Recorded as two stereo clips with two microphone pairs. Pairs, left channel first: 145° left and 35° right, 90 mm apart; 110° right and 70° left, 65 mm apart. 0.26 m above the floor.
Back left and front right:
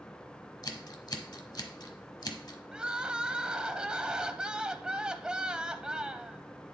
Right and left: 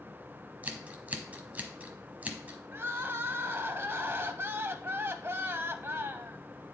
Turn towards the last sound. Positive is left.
turn(degrees=40)